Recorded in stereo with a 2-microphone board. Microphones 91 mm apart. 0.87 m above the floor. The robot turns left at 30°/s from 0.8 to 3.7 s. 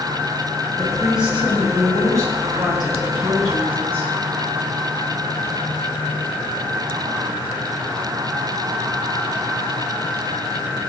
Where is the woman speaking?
Straight ahead, 8.5 m; by 4.1 s 85° right, 8.5 m.